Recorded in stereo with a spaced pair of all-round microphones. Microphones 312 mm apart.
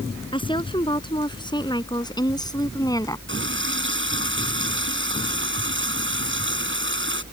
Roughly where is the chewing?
No chewing in this recording.